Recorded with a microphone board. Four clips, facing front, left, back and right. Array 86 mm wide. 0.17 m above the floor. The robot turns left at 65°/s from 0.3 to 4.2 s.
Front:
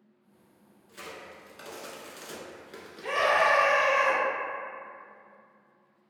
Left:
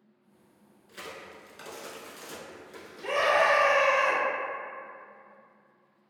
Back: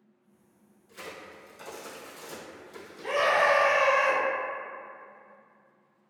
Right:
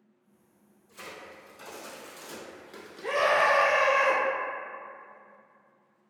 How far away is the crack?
About 0.6 m.